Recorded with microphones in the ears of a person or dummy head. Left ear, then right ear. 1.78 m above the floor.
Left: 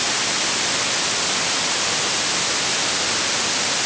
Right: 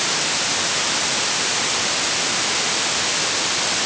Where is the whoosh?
No whoosh in this recording.